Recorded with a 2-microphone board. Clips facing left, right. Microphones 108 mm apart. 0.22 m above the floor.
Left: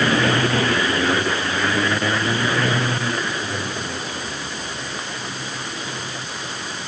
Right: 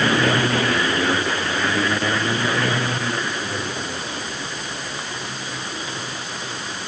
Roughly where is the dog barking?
No dog barking in this recording.